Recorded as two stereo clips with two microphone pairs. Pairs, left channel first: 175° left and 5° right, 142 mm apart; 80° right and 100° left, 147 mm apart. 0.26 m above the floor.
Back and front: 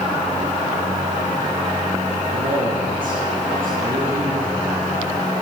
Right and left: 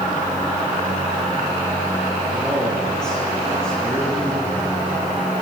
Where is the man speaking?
10° left, 6 m; by 4.9 s 5° left, 8 m.